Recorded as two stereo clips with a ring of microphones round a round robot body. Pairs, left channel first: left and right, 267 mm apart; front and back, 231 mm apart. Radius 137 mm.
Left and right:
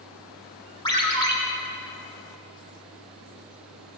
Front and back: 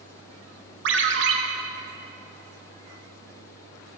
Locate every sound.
0.8 s a ringtone: 160° left, 1.2 m